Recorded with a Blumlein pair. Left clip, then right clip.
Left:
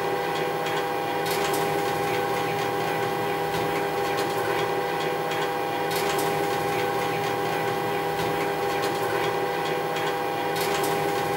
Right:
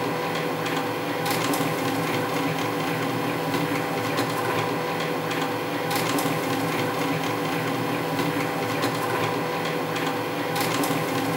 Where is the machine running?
65° right, 0.9 m.